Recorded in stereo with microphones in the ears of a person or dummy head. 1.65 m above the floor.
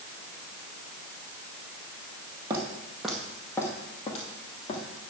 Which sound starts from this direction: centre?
Footsteps, at 2.5 s.